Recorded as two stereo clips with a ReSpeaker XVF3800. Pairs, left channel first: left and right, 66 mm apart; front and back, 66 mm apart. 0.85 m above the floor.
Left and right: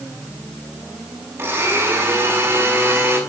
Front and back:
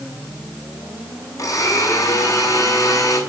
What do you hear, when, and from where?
1.4 s a blender: 35° right, 6 m